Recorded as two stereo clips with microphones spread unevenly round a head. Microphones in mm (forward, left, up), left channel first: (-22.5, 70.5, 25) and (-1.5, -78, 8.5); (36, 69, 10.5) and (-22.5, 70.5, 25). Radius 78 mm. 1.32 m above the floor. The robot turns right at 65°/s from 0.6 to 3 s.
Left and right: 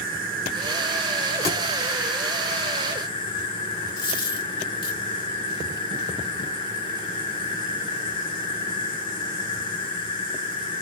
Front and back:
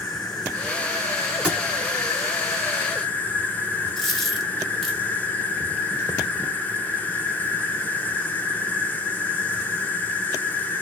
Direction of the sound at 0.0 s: 90° right.